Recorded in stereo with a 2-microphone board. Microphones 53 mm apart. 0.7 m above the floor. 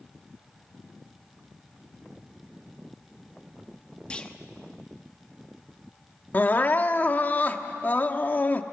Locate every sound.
4.1 s a clunk: 20° left (ahead or behind), 1.2 m
6.3 s crying: 35° left (ahead or behind), 0.9 m